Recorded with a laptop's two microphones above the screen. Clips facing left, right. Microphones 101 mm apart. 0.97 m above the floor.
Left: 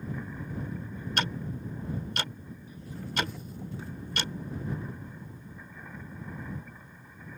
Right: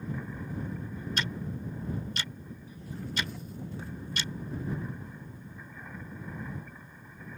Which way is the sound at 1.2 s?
60° left (ahead or behind).